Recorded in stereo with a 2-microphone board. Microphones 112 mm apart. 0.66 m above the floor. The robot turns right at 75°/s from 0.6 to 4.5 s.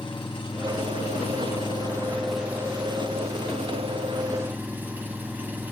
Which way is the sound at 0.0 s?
50° left.